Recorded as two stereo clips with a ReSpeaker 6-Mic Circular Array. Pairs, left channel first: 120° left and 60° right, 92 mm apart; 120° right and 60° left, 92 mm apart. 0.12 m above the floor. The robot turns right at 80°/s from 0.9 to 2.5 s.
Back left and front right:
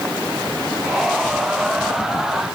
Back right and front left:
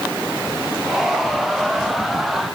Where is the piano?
No piano in this recording.